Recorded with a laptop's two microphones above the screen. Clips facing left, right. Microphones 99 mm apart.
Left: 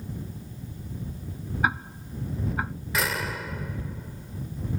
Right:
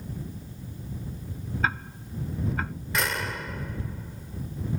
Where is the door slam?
Centre (ahead or behind).